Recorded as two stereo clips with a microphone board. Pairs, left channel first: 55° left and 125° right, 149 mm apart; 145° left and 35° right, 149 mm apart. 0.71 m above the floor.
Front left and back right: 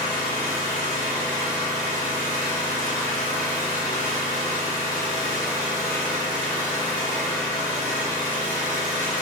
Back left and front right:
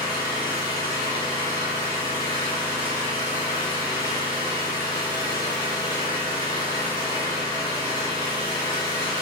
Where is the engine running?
80° left, 1.9 m.